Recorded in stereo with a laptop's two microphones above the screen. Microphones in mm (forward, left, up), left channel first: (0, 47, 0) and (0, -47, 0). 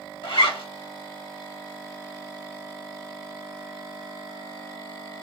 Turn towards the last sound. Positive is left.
turn(degrees=75)  # may be behind; listen again after turning